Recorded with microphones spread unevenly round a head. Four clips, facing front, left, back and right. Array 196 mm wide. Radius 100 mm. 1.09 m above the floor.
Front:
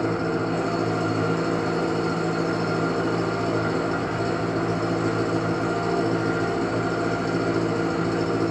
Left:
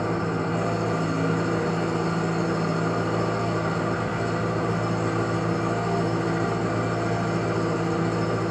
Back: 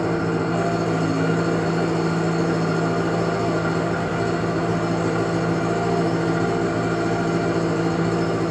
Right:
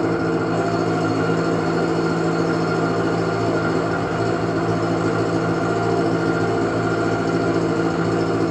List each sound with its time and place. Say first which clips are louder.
0.0 s an engine running: right 6 dB, back 2 dB; 95° right, 2.5 m